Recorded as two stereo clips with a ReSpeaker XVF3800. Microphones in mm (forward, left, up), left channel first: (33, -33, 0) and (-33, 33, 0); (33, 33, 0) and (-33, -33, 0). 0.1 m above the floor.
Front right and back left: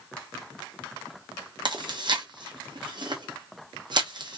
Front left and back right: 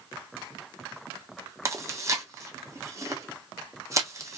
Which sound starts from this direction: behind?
Chewing, at 1.6 s.